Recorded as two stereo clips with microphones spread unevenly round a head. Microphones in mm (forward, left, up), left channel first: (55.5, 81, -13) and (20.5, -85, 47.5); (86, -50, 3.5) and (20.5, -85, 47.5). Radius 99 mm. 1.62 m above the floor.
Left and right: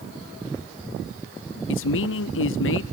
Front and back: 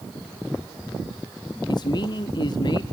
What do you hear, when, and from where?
1.7 s a man speaking: 75° left, 0.6 m